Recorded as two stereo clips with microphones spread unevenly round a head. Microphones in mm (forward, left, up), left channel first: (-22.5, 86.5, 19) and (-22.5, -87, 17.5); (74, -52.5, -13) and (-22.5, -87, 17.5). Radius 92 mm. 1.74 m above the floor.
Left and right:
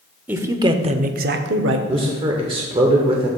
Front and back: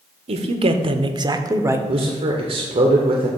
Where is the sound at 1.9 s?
150° right, 0.9 m.